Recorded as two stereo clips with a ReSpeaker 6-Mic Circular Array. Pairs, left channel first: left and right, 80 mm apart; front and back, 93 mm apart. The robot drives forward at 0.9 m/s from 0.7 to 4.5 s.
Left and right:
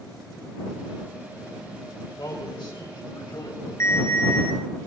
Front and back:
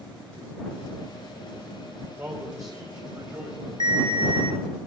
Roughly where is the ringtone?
Behind left.